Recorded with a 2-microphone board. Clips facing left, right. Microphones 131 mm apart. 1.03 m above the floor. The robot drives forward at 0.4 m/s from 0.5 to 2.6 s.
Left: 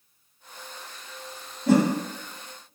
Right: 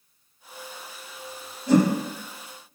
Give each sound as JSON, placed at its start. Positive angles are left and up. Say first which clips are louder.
{"t": 1.7, "sound": "a whoosh", "louder": "right 1 dB", "side_deg": 55, "distance_m": 0.8}